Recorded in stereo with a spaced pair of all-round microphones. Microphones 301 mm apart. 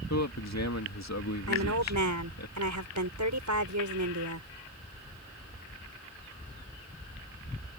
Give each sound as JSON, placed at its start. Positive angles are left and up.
{"t": 0.1, "sound": "a man speaking", "side_deg": 60}
{"t": 1.5, "sound": "a woman speaking", "side_deg": -70}